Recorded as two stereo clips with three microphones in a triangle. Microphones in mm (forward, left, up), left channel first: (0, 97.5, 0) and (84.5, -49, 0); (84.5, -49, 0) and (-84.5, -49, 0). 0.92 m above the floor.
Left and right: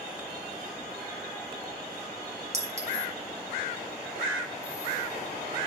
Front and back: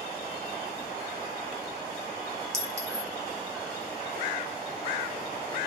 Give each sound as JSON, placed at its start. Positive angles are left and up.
{"t": 2.5, "sound": "a clink", "azimuth_deg": -105, "distance_m": 1.7}